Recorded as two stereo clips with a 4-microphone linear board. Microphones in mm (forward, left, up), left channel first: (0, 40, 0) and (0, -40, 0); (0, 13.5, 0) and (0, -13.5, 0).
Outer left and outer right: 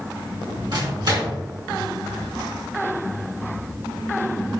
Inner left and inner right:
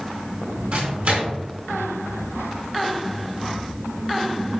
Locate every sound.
0.7 s a microwave: 65° right (ahead or behind), 5 m